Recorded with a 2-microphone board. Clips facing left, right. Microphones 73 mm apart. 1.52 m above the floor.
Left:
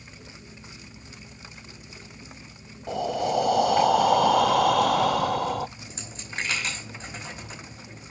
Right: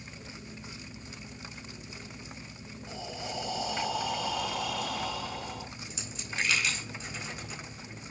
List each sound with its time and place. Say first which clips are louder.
2.9 s breathing: left 14 dB; 65° left (ahead or behind), 0.6 m
5.8 s a dropped coin: left 1 dB; 40° left (ahead or behind), 5 m